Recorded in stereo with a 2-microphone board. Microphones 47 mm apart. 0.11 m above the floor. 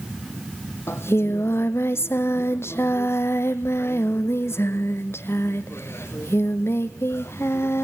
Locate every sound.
0.9 s singing: 60° left (ahead or behind), 1.2 m